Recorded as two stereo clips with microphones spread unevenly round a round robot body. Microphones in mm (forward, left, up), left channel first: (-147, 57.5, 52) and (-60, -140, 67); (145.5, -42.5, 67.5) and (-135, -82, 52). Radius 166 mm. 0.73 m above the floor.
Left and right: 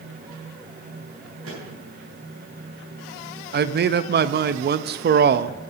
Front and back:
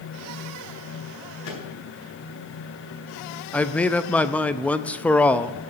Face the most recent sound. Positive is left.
turn(degrees=-80)